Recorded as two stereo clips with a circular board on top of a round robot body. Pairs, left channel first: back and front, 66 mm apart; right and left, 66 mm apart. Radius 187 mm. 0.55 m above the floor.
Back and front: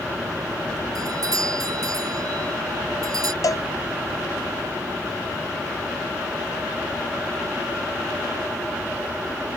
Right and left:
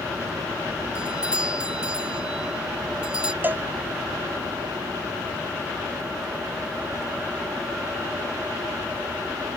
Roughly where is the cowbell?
Behind left.